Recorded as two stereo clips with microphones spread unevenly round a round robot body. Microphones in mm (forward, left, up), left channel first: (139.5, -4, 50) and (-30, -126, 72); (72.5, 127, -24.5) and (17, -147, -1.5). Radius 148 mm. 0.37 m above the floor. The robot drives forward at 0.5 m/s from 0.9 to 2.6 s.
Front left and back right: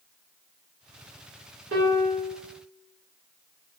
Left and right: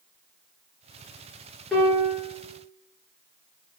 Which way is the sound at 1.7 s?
165° left.